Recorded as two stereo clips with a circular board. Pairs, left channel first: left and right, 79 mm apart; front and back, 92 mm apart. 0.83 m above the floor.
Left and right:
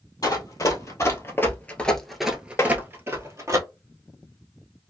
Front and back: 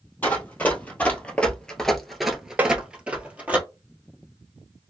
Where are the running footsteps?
65° left, 1.3 m; by 3.6 s 115° right, 1.1 m.